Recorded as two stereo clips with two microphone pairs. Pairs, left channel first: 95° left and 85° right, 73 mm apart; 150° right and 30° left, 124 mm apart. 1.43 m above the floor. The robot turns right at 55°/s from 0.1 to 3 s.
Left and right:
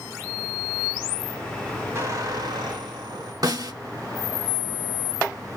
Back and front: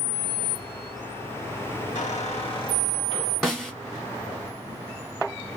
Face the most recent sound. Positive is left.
turn(degrees=-65)